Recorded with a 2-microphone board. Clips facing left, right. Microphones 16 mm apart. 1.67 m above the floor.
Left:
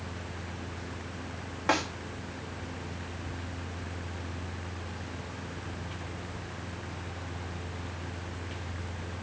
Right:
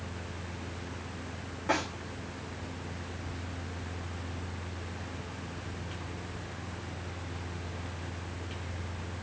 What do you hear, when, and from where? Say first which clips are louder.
1.7 s a snare drum: left 2 dB; 40° left (ahead or behind), 2.5 m